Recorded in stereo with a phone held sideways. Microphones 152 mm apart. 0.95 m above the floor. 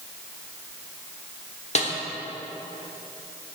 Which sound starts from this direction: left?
A snare drum, at 1.8 s.